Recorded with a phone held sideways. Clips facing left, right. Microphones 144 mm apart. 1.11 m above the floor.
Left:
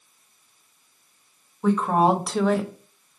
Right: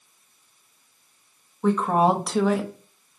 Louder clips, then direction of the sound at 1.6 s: Even; centre (ahead or behind).